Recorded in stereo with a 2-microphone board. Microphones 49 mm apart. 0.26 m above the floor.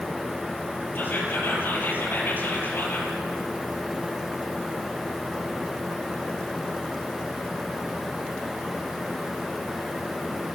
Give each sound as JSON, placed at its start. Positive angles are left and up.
{"t": 0.9, "sound": "whispering", "side_deg": 45, "distance_m": 7.5}